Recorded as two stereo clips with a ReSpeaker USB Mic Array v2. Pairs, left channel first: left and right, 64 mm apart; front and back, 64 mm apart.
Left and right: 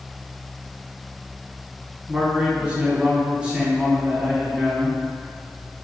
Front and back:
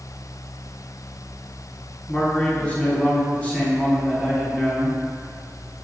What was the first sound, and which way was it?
A man speaking, 40° right.